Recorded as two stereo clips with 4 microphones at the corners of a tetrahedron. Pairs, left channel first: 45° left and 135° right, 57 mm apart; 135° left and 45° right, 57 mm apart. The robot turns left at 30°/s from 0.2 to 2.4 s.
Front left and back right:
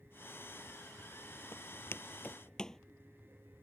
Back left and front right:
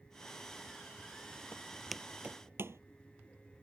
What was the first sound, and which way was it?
Footsteps, 80° left.